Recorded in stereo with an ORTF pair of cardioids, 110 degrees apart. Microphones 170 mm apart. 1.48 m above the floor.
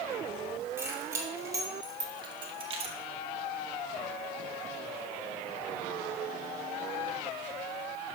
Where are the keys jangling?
15° right, 2.5 m; by 3.0 s 45° right, 1.2 m.